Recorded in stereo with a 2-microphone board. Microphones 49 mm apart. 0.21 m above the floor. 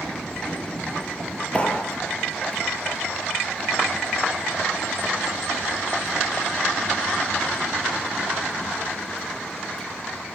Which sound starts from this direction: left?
A clap, at 1.5 s.